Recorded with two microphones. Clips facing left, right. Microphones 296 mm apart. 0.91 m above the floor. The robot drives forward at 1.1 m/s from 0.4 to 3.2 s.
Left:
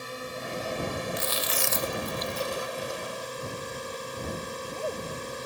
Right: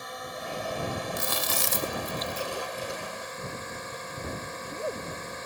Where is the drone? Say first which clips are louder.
Left 2 dB; 35° left (ahead or behind); by 5.5 s 40° left (ahead or behind).